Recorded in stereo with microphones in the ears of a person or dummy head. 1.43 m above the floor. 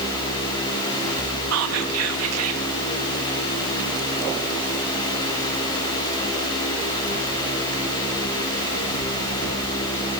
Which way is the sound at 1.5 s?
80° right.